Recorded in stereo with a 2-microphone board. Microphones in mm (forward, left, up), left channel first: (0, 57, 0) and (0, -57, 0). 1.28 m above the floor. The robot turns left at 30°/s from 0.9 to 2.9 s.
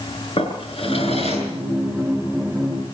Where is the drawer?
60° left (ahead or behind), 6.5 m; by 1.5 s 75° left (ahead or behind), 6.5 m.